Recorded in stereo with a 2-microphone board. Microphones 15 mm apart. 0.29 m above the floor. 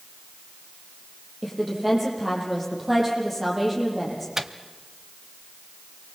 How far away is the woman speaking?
About 9 m.